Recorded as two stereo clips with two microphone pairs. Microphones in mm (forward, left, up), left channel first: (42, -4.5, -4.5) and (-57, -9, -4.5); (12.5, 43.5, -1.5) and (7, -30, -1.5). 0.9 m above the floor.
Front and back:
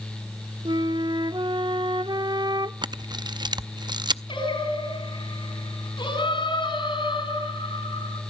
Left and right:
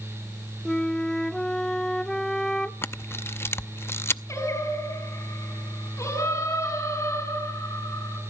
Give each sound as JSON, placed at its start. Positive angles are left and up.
{"t": 0.7, "sound": "a flute", "azimuth_deg": 165, "distance_m": 0.7}
{"t": 2.8, "sound": "a camera shutter", "azimuth_deg": 140, "distance_m": 0.5}
{"t": 4.3, "sound": "singing", "azimuth_deg": 35, "distance_m": 5.5}